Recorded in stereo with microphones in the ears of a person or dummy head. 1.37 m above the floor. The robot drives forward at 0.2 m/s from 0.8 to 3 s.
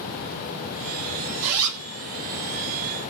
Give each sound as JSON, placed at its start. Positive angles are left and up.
{"t": 1.4, "sound": "a zipper", "side_deg": -70, "distance_m": 1.0}